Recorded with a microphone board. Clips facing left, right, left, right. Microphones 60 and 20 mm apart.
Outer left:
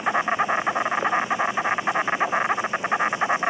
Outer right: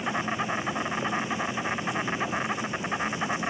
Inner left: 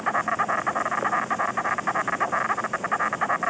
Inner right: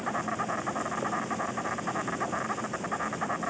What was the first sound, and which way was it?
An insect, 35° left (ahead or behind).